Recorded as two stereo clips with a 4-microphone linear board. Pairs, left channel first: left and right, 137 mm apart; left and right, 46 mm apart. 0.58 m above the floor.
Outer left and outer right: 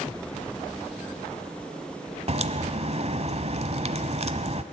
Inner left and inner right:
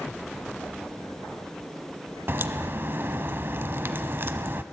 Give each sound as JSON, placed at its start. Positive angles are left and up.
{"t": 2.3, "sound": "a crack", "side_deg": -50, "distance_m": 1.0}